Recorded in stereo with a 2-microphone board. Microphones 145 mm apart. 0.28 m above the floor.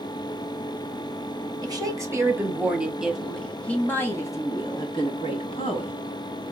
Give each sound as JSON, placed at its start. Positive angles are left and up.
{"t": 1.6, "sound": "a woman speaking", "side_deg": -25, "distance_m": 1.8}